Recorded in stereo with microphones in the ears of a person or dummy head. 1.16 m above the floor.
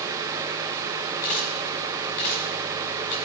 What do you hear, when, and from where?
1.2 s a camera shutter: 40° left (ahead or behind), 1.2 m